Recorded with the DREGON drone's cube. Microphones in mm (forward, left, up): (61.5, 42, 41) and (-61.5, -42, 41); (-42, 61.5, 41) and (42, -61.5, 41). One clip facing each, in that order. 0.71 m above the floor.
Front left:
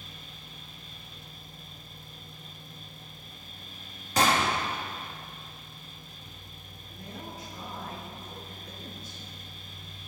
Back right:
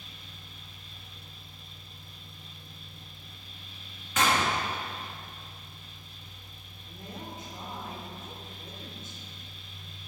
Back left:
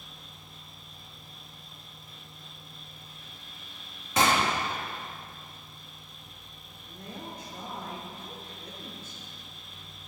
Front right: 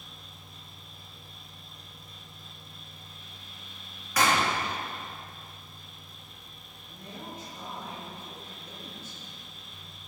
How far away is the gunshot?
About 1.4 m.